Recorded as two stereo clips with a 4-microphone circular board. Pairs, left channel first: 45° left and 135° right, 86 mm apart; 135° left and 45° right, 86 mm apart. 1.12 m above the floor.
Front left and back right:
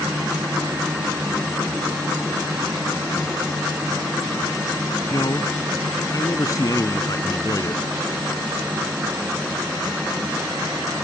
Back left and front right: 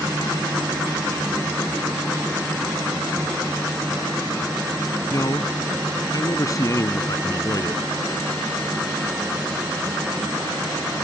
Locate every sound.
5.1 s a man speaking: 90° left